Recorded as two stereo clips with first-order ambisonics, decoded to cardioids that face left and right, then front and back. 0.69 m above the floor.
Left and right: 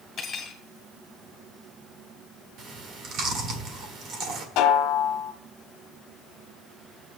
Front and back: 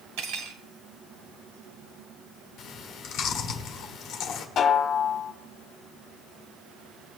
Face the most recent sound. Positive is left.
turn(degrees=60)